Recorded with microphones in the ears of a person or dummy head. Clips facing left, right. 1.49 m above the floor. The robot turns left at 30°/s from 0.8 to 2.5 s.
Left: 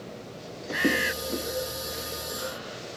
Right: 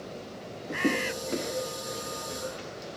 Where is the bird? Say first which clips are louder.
Left 1 dB; 10° left (ahead or behind); by 1.1 s 20° left (ahead or behind).